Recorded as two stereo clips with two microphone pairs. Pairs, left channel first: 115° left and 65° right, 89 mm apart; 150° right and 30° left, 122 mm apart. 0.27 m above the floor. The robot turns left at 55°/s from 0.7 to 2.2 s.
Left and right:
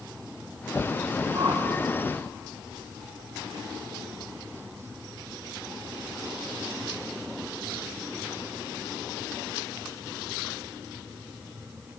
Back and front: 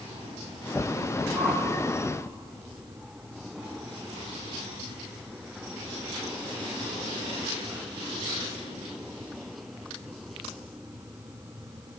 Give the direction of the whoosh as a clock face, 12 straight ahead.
2 o'clock.